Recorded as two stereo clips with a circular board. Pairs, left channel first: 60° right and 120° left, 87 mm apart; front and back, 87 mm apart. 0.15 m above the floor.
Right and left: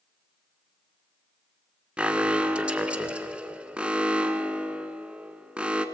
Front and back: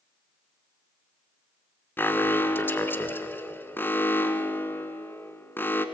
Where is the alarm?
50° left, 1.1 m.